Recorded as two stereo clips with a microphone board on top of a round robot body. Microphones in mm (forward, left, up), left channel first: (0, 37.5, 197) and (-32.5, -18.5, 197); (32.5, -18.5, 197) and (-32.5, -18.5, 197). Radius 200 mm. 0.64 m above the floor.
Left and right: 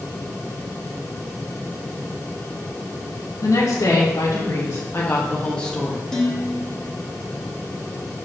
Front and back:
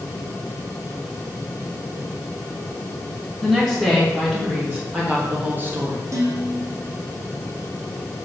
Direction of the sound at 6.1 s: 140° left.